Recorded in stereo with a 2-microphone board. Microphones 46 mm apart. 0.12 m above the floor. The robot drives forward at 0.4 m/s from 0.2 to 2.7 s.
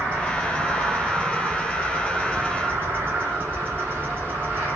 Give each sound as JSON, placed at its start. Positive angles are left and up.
{"t": 0.0, "sound": "an insect", "side_deg": -30, "distance_m": 3.5}